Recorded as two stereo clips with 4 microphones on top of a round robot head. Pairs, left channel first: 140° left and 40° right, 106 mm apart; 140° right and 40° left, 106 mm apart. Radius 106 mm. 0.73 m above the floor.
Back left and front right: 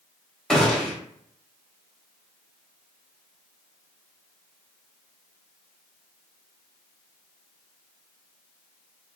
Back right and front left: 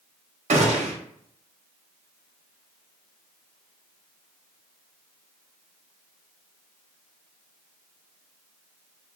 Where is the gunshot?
55° left, 0.6 m.